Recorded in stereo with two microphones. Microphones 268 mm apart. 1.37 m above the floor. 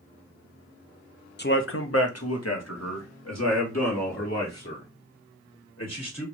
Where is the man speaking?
40° left (ahead or behind), 0.5 m; by 6.2 s 70° left (ahead or behind), 3 m.